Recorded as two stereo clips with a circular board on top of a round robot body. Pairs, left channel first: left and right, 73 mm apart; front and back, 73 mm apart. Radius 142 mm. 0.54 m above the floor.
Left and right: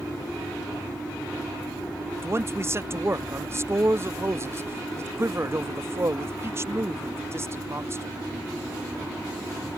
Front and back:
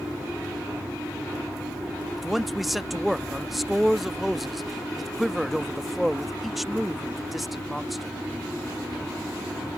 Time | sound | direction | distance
2.2 | a man speaking | 90° right | ?